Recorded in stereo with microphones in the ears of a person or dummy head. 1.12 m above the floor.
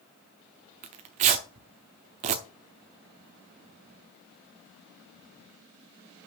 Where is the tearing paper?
35° right (ahead or behind), 0.8 m.